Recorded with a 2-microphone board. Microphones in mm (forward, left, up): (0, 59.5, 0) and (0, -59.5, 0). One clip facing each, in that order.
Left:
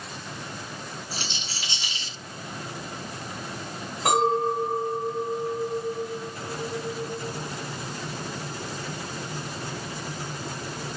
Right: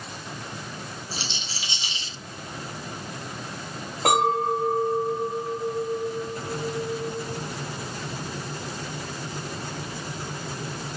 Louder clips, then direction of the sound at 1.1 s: Even; 50° left (ahead or behind).